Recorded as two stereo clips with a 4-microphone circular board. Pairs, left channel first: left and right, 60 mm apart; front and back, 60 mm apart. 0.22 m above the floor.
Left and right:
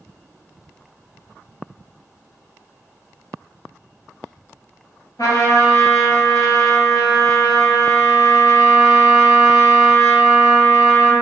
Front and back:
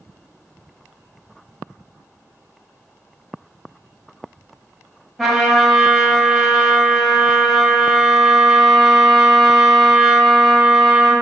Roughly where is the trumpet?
Left.